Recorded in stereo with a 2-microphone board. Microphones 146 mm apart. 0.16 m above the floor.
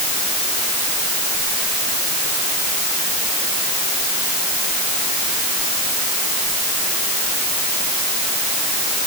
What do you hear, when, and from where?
Only background noise.